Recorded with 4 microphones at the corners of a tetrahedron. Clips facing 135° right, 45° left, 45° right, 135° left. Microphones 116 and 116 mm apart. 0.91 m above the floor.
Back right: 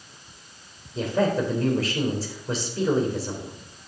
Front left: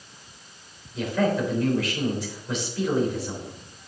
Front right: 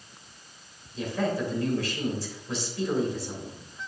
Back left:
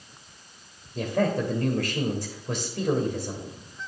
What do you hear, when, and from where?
0.9 s a man speaking: 170° left, 3 m